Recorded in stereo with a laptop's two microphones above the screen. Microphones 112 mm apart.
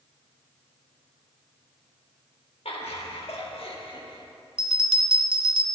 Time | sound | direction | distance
2.6 | laughter | 75° left (ahead or behind) | 1.5 m
4.6 | a bell | 60° right (ahead or behind) | 1.2 m